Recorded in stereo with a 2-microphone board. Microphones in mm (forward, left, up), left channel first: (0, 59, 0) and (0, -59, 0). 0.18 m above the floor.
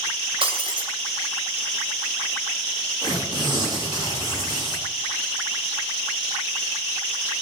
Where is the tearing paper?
40° right (ahead or behind), 7.5 m.